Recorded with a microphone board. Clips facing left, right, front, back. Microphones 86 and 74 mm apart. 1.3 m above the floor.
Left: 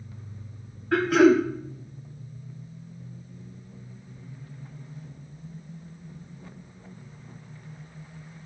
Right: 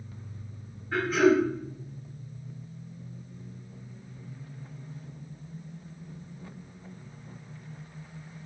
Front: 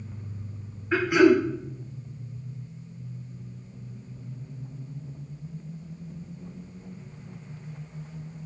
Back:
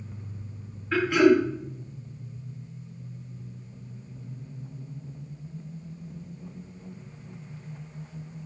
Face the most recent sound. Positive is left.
turn(degrees=70)